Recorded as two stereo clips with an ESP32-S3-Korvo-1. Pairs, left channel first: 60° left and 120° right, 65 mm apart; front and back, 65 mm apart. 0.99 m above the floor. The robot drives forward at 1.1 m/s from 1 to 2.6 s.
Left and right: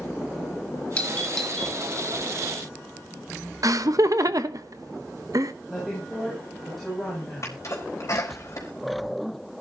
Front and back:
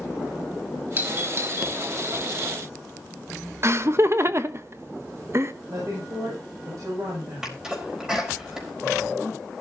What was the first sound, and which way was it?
A doorbell, 125° left.